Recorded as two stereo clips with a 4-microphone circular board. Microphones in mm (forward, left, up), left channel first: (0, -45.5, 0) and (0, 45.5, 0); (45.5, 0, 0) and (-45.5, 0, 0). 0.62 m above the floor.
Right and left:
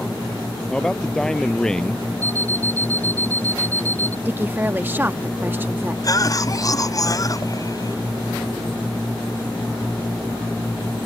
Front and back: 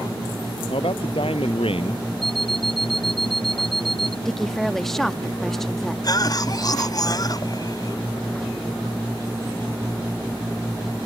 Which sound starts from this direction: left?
A woman speaking, at 4.2 s.